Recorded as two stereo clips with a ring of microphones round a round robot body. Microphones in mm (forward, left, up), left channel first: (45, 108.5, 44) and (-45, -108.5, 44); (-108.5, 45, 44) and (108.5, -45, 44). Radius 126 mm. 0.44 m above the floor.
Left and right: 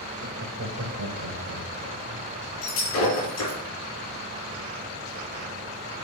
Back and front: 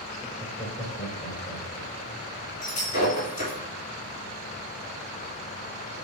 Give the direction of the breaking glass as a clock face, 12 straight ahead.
9 o'clock.